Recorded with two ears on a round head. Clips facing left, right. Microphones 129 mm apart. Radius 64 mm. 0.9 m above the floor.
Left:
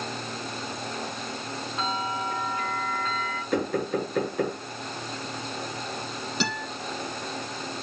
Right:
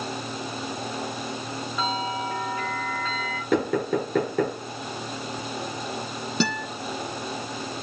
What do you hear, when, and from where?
1.8 s a bell: 70° right (ahead or behind), 8 m
3.5 s knocking: 60° right (ahead or behind), 8 m
6.4 s a guitar: 85° right, 8.5 m